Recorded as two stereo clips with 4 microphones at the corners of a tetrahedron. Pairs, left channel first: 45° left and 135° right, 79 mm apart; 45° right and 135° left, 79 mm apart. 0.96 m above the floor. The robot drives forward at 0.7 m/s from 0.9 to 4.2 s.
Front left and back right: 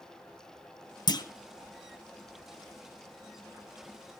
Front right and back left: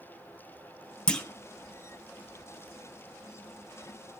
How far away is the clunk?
About 1.1 m.